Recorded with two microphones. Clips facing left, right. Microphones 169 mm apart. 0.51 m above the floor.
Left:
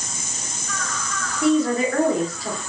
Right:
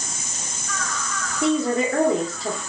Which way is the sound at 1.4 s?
25° right (ahead or behind).